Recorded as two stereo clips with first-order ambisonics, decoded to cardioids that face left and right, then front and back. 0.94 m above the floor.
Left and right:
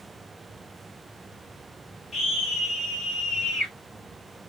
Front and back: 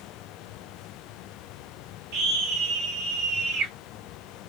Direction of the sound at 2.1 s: 170° left.